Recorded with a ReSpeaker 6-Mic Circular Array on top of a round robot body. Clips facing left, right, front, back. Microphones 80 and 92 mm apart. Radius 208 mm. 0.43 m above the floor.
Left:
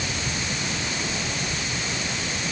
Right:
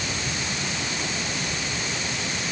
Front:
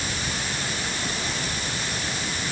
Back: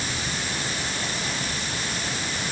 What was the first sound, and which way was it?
Only background noise.